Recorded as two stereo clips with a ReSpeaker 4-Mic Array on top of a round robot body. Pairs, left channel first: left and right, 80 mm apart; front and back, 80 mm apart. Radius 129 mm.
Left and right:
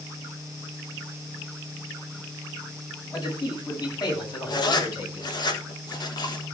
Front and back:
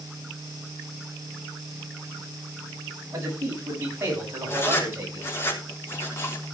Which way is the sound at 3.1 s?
125° left.